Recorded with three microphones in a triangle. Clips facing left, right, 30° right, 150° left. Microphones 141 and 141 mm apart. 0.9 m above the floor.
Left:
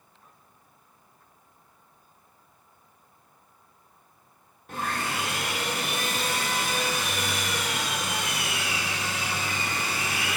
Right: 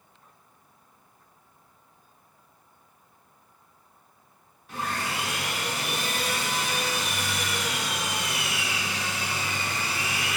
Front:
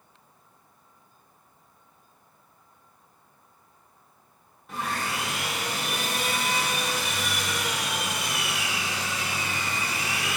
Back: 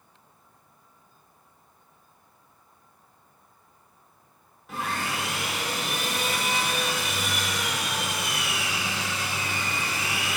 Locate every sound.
4.7 s sawing: 65° left, 0.8 m